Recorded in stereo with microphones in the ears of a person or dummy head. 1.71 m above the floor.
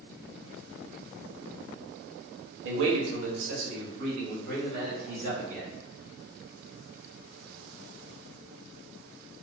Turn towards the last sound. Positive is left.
turn(degrees=-45)  # may be behind; listen again after turning